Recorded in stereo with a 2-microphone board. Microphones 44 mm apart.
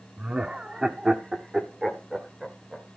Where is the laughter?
25° right (ahead or behind), 0.8 m; by 2.9 s centre (ahead or behind), 1.8 m.